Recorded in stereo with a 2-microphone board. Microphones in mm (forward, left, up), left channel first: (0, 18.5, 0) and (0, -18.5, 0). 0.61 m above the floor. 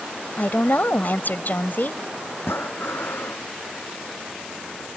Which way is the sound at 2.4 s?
90° left.